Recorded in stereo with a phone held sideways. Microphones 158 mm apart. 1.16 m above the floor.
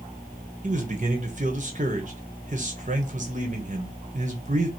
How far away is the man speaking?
About 1.0 m.